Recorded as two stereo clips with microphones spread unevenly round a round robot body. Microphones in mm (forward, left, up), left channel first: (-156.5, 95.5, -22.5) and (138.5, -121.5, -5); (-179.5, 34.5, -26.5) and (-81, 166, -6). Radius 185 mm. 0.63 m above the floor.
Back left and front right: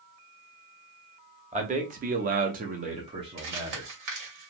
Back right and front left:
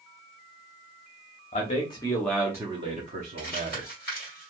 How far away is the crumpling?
About 1.7 m.